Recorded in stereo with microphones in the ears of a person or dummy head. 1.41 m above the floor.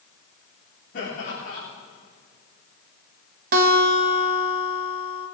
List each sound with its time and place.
0.9 s laughter: 55° left (ahead or behind), 3.5 m
3.5 s a guitar: 55° right (ahead or behind), 2.0 m